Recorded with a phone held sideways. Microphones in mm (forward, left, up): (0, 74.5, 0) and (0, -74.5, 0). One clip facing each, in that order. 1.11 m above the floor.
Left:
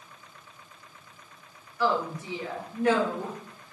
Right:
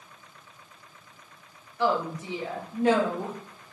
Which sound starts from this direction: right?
A woman speaking, at 1.8 s.